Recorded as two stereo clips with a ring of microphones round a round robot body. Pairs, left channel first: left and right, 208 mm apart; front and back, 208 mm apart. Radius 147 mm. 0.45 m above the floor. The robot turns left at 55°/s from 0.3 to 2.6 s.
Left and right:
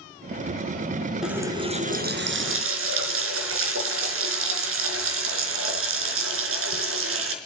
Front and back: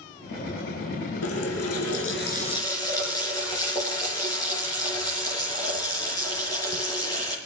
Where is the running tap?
Straight ahead, 4 m; by 7.3 s 80° right, 4 m.